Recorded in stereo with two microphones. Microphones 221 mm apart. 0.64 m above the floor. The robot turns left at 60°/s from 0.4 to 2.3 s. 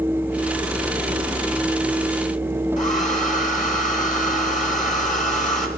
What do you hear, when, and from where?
2.8 s a hair dryer: 35° left (ahead or behind), 2 m